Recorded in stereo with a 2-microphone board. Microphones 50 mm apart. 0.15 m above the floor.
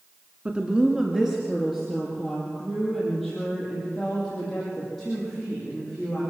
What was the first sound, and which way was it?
A woman speaking, 25° right (ahead or behind).